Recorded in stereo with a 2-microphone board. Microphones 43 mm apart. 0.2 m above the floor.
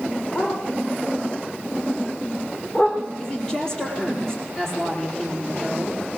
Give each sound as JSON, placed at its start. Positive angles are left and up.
{"t": 0.3, "sound": "a dog barking", "side_deg": 35, "distance_m": 9.0}
{"t": 3.2, "sound": "a woman speaking", "side_deg": 15, "distance_m": 5.0}